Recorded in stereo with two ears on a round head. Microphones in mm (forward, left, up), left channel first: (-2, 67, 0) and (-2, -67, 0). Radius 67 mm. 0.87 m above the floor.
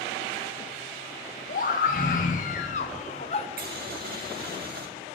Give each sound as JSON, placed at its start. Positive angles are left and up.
{"t": 1.5, "sound": "a scream", "side_deg": 55, "distance_m": 1.9}
{"t": 3.6, "sound": "boiling", "side_deg": -65, "distance_m": 1.8}